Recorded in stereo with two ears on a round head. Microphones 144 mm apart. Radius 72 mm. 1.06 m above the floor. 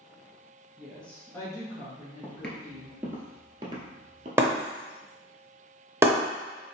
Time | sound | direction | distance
0.8 | a woman speaking | centre (ahead or behind) | 1.1 m
2.2 | footsteps | 15° left (ahead or behind) | 1.1 m
4.4 | breaking glass | 15° right (ahead or behind) | 0.8 m